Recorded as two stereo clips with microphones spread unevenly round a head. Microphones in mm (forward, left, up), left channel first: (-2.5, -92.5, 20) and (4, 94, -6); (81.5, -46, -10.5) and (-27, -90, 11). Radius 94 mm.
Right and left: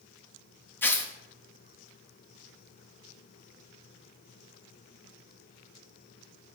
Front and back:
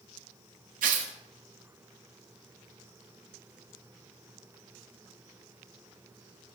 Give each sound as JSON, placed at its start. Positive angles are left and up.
{"t": 0.8, "sound": "tearing paper", "azimuth_deg": -175, "distance_m": 1.3}